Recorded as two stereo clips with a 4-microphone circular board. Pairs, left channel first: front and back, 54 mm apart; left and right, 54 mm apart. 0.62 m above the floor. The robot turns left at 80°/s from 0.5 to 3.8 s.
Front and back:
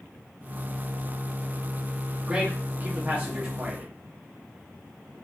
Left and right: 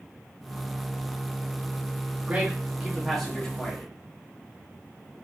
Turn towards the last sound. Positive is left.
turn(degrees=115)